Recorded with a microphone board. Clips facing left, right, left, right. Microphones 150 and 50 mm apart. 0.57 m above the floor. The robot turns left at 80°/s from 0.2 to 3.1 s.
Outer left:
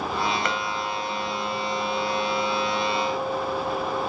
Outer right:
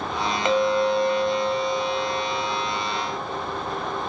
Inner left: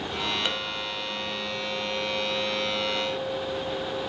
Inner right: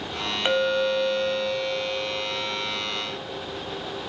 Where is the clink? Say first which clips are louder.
Outer right 9 dB, inner right 9 dB; 25° right, 2.5 m; by 4.1 s 125° left, 2.5 m.